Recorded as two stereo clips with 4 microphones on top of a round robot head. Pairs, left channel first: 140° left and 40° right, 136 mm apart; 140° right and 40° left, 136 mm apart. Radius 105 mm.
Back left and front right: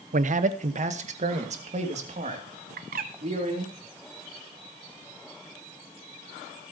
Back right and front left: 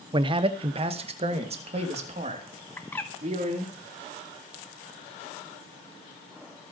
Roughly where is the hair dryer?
I don't hear a hair dryer.